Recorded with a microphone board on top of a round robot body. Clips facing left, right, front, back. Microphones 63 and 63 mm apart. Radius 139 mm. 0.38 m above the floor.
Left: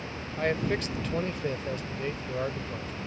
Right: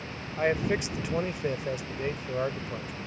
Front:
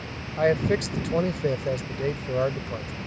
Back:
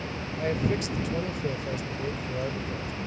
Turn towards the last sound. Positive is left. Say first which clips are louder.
# right 2 dB, front 6 dB
turn(degrees=-15)